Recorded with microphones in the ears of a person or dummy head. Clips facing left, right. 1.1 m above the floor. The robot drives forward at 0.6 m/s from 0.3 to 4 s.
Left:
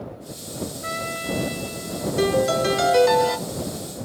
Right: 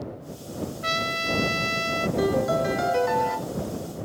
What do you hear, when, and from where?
0.8 s a trumpet: 40° right (ahead or behind), 0.9 m; by 2.1 s 80° right, 0.6 m
2.2 s a piano: 40° left (ahead or behind), 2.5 m; by 3.4 s 55° left (ahead or behind), 1.8 m